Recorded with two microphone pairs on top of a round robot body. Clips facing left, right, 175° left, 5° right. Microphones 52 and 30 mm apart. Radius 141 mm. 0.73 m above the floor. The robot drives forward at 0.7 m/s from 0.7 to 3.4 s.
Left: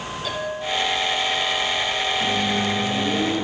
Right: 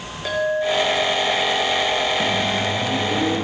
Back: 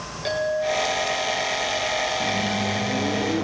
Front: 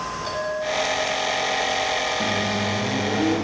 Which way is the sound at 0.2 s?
135° right.